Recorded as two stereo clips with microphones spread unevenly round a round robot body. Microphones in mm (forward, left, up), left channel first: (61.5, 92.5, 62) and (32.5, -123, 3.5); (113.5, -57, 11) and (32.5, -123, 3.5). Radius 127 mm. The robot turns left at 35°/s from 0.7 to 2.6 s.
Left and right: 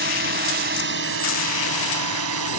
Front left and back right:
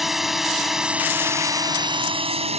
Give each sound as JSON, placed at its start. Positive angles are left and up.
{"t": 0.0, "sound": "a drone", "azimuth_deg": -50}